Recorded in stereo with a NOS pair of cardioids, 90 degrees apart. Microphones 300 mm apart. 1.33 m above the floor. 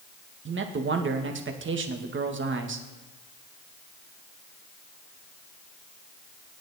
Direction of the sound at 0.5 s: 40° right.